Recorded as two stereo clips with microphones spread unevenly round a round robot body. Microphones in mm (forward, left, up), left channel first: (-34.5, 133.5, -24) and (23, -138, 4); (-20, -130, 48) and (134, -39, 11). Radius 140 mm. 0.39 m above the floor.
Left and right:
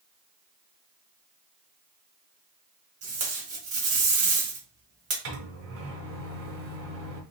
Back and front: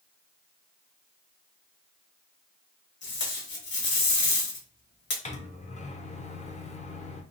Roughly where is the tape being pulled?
Behind right.